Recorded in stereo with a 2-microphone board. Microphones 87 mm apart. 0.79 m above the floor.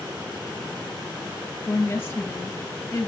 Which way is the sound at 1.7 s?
25° left (ahead or behind).